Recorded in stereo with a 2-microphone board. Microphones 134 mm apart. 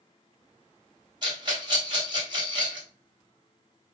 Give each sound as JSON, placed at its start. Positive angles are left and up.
{"t": 1.2, "sound": "a rattle", "side_deg": -35, "distance_m": 1.2}